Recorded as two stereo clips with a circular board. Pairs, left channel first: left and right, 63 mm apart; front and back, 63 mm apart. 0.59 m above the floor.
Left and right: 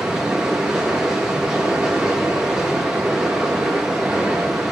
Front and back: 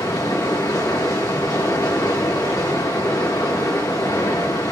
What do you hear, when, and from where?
0.0 s running water: 10° right, 4.5 m